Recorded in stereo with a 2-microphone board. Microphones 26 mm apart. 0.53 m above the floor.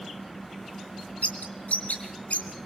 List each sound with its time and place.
1.2 s a bird: 70° left (ahead or behind), 2.5 m